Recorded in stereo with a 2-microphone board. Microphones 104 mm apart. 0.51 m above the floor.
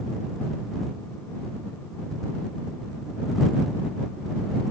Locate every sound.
Only background noise.